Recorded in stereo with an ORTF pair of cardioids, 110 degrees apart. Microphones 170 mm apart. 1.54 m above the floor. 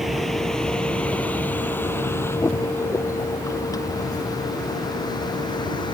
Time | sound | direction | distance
0.0 | a vehicle | straight ahead | ?